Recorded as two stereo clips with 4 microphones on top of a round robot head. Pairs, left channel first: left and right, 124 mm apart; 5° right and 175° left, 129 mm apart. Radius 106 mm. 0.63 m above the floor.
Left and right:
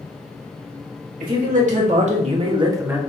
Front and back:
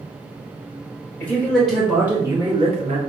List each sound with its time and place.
1.2 s a man speaking: 85° right, 2.5 m; by 3.0 s 170° right, 1.3 m